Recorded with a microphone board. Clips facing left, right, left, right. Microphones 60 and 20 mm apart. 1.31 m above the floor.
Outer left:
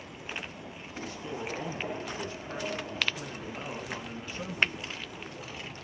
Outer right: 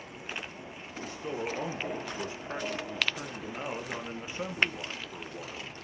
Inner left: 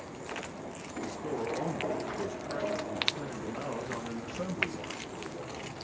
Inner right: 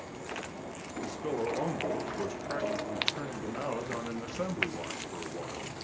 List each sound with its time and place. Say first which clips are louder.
1.0 s a man speaking: outer right 3 dB, inner right 2 dB; 25° right (ahead or behind), 1.3 m